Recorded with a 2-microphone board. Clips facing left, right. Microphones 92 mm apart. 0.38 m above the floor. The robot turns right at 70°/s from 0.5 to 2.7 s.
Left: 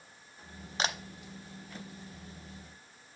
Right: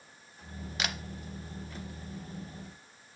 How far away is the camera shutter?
About 0.5 m.